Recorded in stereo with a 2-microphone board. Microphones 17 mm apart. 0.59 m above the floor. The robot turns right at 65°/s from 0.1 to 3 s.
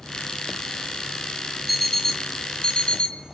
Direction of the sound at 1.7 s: 5° right.